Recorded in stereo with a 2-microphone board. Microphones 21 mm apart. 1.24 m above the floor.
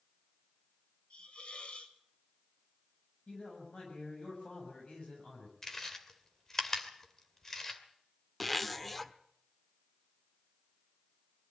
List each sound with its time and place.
1.1 s a hiss: 60° left (ahead or behind), 2 m
3.3 s a man speaking: 60° left (ahead or behind), 7.5 m
5.6 s chewing: 20° left (ahead or behind), 2.5 m
8.4 s a zipper: 10° left (ahead or behind), 1.0 m